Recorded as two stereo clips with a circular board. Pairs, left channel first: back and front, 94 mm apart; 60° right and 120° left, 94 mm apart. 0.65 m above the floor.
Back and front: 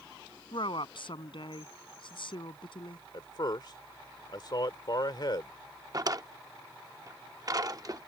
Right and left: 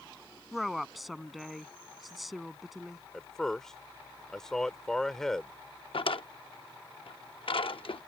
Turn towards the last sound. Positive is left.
turn(degrees=-45)